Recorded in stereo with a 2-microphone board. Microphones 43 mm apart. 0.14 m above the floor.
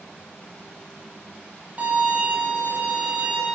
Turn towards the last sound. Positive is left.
turn(degrees=-35)  # may be behind; listen again after turning